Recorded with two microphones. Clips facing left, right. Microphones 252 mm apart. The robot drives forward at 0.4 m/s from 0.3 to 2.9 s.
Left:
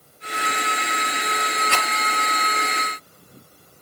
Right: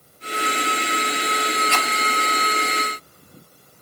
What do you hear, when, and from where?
1.7 s a rattle: 70° left (ahead or behind), 5 m